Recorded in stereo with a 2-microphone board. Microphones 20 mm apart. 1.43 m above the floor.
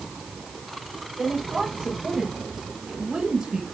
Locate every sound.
1.2 s a woman speaking: 25° right (ahead or behind), 6 m; by 3.6 s 20° right (ahead or behind), 5 m